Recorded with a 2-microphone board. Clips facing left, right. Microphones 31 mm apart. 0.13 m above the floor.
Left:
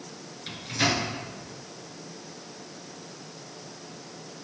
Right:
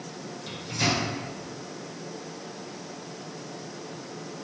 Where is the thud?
I don't hear a thud.